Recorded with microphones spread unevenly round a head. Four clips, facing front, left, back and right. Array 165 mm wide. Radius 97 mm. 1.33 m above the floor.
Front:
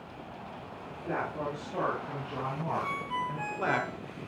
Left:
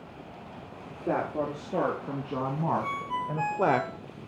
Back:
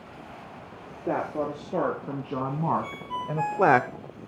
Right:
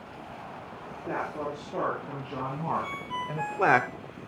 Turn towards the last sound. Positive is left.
turn(degrees=130)